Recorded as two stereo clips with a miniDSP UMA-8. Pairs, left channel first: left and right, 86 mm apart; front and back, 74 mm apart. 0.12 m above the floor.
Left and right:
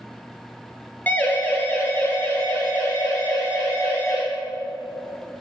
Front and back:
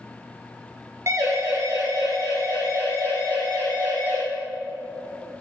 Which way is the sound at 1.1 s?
155° left.